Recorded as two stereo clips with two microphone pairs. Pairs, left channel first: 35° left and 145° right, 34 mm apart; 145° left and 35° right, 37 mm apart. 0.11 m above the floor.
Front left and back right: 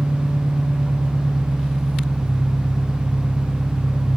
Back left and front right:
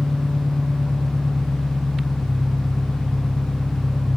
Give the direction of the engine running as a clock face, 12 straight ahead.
5 o'clock.